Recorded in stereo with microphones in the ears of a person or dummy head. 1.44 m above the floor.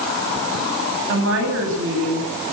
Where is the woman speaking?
75° right (ahead or behind), 9 m.